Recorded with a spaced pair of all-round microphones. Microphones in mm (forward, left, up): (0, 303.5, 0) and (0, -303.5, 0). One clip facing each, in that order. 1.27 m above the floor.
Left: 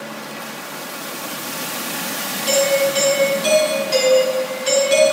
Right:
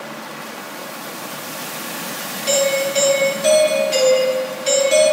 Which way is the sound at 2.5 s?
15° right (ahead or behind).